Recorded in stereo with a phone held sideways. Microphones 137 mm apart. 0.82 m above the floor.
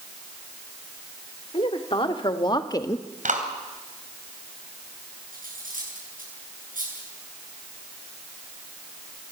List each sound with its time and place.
1.5 s a woman speaking: 40° left (ahead or behind), 2.5 m; by 3.1 s 15° left (ahead or behind), 0.9 m
3.2 s a clap: 70° right (ahead or behind), 3 m
5.3 s cutlery clinking: 90° right, 7.5 m